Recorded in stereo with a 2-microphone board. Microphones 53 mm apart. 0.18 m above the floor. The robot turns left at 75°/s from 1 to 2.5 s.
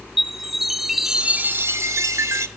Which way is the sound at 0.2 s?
5° right.